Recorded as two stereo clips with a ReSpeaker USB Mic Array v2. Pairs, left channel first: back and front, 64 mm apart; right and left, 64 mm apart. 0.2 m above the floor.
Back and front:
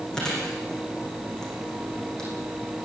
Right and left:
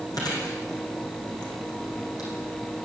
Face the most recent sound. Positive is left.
turn(degrees=-100)